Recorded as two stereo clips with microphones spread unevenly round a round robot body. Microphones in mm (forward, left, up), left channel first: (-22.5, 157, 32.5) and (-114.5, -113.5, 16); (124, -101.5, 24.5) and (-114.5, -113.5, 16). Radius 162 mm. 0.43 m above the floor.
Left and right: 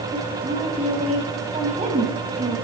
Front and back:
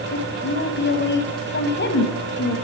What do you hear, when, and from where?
0.1 s a woman speaking: 40° right, 3 m